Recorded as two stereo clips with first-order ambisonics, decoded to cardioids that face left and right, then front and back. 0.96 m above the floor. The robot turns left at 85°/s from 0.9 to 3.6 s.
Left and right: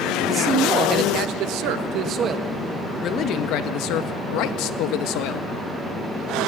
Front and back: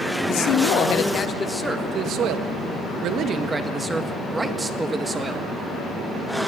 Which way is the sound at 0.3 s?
30° right.